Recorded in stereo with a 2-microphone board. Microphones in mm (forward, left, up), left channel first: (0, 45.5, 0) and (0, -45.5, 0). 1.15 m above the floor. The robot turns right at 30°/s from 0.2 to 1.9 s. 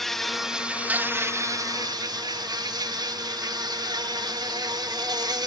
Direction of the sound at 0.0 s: Straight behind.